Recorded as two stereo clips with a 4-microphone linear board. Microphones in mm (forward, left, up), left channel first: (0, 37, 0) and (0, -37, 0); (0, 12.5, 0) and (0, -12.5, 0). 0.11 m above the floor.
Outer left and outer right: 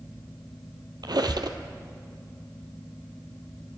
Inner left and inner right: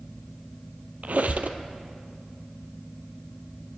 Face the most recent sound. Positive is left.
turn(degrees=-70)  # may be behind; listen again after turning